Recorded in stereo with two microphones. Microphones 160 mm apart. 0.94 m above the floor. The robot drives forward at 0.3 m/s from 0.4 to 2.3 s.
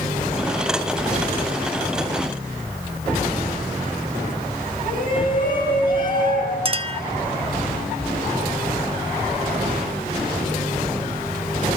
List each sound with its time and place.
4.8 s a shout: 60° left (ahead or behind), 9.5 m
6.7 s a clink: 35° right (ahead or behind), 0.7 m